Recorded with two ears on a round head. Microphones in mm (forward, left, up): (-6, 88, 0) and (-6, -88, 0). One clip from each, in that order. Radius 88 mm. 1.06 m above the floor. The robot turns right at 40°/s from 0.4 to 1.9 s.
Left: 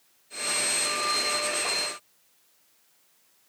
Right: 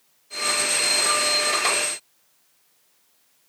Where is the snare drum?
No snare drum in this recording.